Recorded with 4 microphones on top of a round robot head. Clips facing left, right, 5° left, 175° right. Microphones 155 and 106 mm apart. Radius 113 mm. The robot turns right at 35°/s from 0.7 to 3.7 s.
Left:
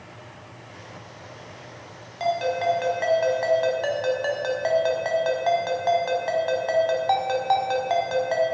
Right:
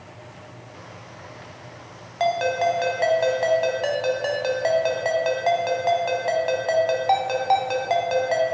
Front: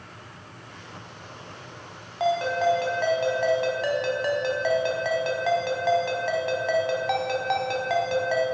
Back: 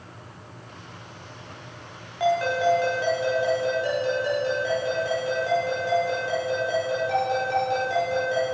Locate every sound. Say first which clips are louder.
2.2 s a ringtone: right 2 dB, back 1 dB; 65° right, 2.5 m; by 8.4 s 15° right, 2.5 m